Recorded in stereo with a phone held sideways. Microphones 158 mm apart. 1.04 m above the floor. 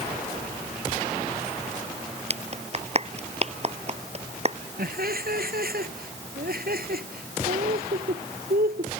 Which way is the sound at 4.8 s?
70° right (ahead or behind).